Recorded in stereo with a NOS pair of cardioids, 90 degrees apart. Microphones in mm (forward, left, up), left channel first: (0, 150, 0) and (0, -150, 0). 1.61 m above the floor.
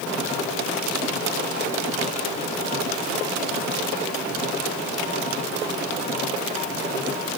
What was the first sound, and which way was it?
Only background noise.